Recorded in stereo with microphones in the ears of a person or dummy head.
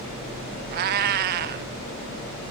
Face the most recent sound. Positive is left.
turn(degrees=-50)  # may be behind; listen again after turning